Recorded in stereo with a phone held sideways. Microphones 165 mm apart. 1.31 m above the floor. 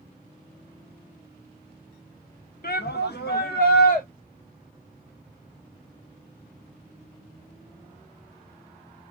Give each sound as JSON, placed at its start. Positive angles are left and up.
{"t": 2.6, "sound": "a shout", "side_deg": 65, "distance_m": 0.9}